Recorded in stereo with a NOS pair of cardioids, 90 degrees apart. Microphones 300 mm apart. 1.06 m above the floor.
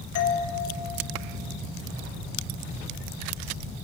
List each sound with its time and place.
0.1 s a doorbell: 55° left, 1.5 m